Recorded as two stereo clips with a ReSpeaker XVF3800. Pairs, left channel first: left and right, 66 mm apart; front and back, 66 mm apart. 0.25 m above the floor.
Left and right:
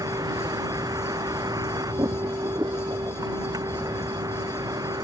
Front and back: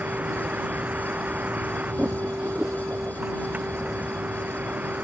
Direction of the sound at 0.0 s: 115° right.